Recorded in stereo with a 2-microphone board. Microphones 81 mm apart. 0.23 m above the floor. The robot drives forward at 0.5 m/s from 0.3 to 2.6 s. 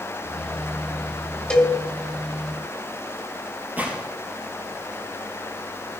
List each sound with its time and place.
1.5 s a cowbell: 15° left (ahead or behind), 2 m
3.8 s a gunshot: 25° right (ahead or behind), 3.5 m